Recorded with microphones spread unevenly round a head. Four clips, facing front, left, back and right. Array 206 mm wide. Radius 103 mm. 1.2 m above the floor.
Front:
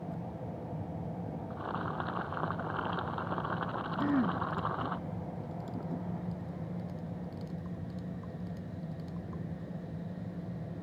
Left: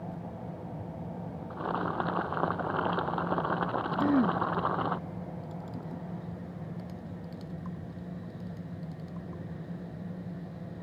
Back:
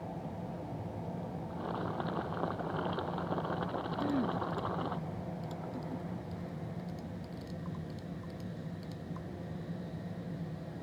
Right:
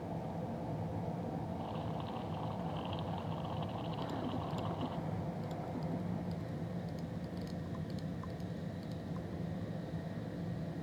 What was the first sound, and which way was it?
Boiling, 100° left.